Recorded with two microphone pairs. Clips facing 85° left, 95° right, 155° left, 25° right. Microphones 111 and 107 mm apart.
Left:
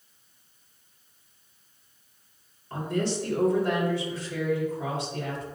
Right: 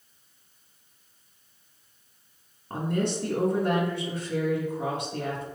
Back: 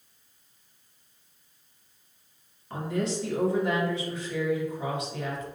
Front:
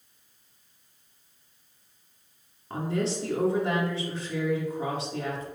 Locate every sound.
2.7 s a woman speaking: 80° right, 3 m